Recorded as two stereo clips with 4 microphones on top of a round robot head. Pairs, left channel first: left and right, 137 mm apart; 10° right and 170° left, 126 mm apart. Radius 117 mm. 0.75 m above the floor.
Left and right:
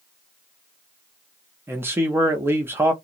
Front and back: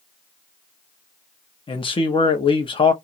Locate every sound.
1.7 s a man speaking: 25° right, 0.6 m